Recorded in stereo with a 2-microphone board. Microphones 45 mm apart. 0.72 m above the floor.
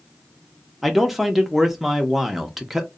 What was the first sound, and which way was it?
A man speaking, 5° right (ahead or behind).